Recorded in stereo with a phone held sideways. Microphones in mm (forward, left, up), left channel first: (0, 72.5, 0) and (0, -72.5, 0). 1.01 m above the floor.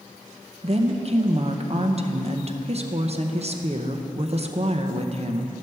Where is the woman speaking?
45° right (ahead or behind), 0.6 m.